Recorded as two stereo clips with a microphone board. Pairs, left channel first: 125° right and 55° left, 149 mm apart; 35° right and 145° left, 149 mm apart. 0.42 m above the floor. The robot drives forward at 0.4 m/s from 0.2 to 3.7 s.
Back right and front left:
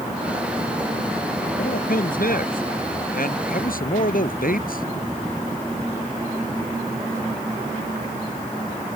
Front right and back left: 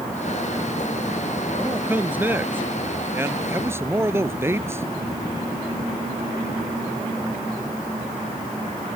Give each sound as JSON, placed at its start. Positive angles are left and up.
{"t": 1.6, "sound": "a man speaking", "azimuth_deg": -135}